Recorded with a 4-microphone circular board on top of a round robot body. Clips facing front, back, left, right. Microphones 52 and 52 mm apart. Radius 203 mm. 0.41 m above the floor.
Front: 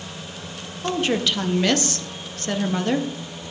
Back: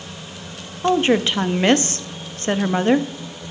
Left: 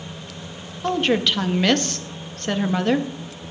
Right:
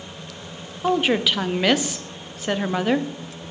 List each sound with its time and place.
0.8 s a woman speaking: 165° right, 0.8 m